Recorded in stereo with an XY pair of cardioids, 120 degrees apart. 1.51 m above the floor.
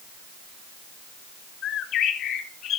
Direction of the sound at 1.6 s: 65° left.